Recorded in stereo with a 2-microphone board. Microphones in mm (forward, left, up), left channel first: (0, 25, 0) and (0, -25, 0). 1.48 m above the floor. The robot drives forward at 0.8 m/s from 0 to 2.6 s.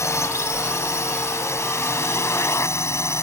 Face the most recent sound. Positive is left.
turn(degrees=65)  # may be behind; listen again after turning